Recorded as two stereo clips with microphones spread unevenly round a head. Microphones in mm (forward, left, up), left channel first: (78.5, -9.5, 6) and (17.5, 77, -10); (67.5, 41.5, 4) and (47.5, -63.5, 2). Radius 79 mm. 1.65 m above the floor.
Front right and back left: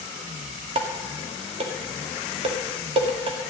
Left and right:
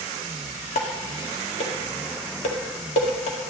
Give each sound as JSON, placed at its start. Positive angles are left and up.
{"t": 0.8, "sound": "dishes clattering", "azimuth_deg": 100, "distance_m": 1.9}